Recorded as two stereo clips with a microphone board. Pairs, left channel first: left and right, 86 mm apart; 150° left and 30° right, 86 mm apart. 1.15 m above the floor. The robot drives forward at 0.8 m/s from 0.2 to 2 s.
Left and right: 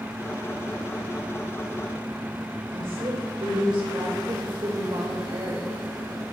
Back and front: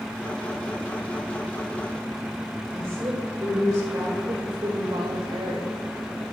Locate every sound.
2.7 s a woman speaking: 85° right, 3.5 m
4.3 s a woman speaking: 65° right, 1.3 m